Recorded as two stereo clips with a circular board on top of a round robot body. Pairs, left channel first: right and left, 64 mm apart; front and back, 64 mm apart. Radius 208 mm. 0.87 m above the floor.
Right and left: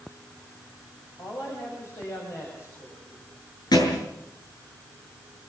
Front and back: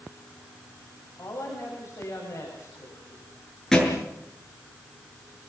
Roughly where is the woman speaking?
Ahead right.